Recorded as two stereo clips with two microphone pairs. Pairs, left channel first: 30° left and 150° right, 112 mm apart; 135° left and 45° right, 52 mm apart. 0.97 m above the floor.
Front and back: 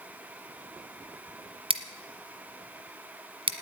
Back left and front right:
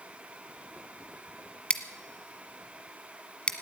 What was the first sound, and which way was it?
Scissors, 160° right.